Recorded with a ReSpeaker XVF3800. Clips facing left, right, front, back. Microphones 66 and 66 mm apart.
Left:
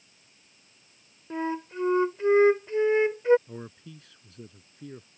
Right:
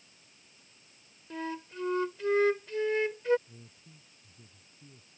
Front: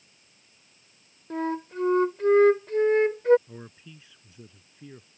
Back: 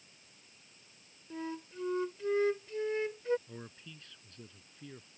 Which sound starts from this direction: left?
A man speaking, at 3.5 s.